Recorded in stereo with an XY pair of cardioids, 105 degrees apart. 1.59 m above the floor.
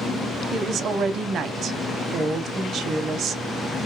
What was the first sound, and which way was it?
A woman speaking, 70° right.